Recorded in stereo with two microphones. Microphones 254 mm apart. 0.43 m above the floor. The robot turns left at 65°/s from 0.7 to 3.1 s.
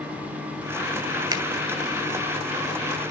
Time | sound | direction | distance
1.3 | a finger snap | 15° right (ahead or behind) | 1.6 m